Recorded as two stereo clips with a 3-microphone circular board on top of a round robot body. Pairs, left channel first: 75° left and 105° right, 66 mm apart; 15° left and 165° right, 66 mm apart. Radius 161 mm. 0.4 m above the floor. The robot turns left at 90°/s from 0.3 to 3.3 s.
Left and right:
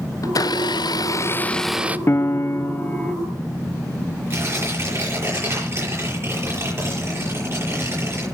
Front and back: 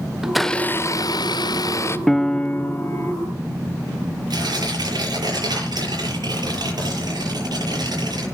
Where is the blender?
110° left, 0.7 m; by 2.0 s 40° right, 0.7 m.